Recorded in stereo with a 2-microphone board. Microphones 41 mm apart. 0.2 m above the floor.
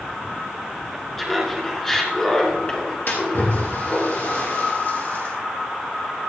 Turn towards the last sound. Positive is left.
turn(degrees=55)  # may be behind; listen again after turning